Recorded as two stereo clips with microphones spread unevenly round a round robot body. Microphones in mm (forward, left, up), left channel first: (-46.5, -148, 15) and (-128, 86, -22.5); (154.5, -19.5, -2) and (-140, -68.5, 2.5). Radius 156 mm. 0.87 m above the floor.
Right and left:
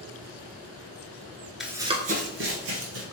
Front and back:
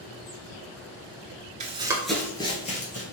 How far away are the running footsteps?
About 0.9 m.